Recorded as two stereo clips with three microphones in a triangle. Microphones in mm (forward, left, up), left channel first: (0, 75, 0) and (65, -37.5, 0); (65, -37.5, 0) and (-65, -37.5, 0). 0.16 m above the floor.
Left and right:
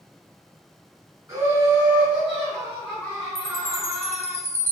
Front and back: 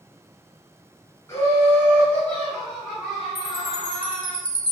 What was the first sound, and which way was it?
Laughter, 35° right.